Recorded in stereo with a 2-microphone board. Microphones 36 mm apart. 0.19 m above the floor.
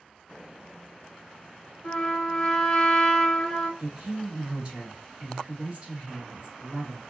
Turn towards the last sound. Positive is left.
turn(degrees=-30)  # may be behind; listen again after turning